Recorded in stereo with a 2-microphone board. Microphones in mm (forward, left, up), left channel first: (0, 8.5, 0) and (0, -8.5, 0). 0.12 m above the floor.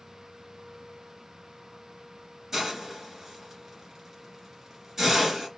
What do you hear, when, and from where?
2.5 s a hiss: 20° right (ahead or behind), 2.0 m